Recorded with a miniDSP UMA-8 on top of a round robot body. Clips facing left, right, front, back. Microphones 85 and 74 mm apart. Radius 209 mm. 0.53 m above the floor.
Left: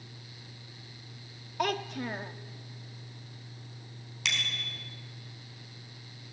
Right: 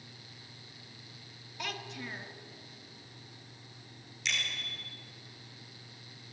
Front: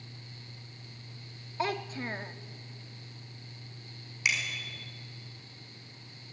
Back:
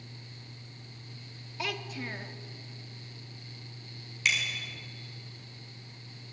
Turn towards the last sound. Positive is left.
turn(degrees=80)